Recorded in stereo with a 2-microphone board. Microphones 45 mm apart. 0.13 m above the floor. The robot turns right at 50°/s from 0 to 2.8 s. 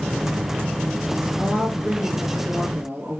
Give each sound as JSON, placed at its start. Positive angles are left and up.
{"t": 1.4, "sound": "a woman speaking", "azimuth_deg": -125, "distance_m": 2.0}